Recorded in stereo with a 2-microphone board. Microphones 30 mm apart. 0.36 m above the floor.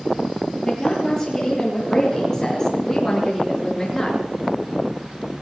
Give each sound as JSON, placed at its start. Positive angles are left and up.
{"t": 0.6, "sound": "a woman speaking", "side_deg": 25, "distance_m": 8.0}